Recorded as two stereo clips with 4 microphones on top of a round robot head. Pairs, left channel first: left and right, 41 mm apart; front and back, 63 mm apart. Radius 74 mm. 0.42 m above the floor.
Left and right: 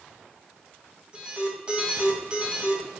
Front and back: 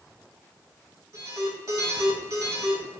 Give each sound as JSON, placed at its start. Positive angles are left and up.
{"t": 1.1, "sound": "an alarm", "azimuth_deg": -155, "distance_m": 3.0}